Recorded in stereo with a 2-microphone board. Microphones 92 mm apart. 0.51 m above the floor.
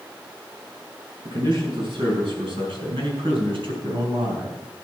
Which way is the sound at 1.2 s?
60° right (ahead or behind).